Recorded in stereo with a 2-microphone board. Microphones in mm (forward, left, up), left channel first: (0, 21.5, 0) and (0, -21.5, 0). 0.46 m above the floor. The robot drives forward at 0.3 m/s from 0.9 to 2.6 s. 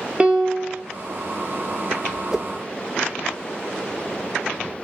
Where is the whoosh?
10° right (ahead or behind), 0.5 m.